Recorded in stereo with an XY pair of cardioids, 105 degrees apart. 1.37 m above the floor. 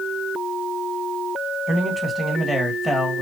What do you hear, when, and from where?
1.7 s a man speaking: straight ahead, 2 m